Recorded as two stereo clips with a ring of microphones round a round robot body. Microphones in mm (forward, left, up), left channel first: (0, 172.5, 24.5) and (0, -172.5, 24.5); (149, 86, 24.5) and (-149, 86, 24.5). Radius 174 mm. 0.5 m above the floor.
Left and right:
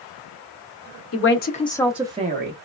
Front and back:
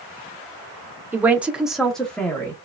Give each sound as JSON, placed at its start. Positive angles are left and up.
{"t": 1.1, "sound": "a man speaking", "azimuth_deg": 100, "distance_m": 0.8}